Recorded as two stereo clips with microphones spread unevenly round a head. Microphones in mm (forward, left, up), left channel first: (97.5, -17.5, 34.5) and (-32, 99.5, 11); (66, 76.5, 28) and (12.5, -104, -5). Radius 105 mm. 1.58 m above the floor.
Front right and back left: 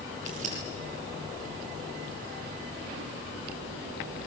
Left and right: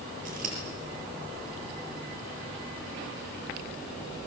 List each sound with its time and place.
0.2 s scissors: 160° right, 8 m